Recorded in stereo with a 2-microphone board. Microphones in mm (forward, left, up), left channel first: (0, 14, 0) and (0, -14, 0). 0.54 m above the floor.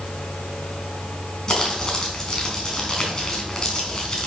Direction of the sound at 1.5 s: 20° left (ahead or behind).